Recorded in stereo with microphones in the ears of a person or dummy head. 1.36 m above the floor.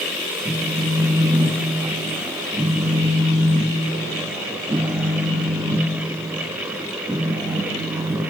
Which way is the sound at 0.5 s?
10° right (ahead or behind).